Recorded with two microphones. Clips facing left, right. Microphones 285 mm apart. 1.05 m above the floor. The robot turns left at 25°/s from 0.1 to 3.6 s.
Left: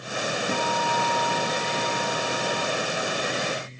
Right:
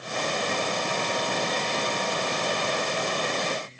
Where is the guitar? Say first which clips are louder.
Left 2 dB; 135° left, 1.4 m; by 2.7 s 80° left, 1.4 m.